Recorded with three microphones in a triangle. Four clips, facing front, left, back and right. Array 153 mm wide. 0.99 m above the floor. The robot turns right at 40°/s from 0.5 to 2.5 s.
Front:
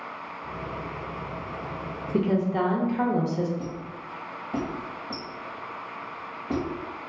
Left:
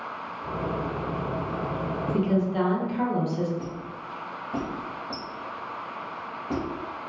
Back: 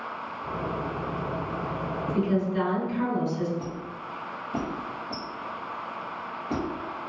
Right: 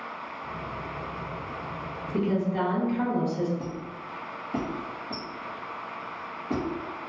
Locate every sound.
2.1 s a woman speaking: 10° left, 0.7 m; by 3.5 s 20° left, 0.7 m
3.6 s a squeak: 50° left, 1.1 m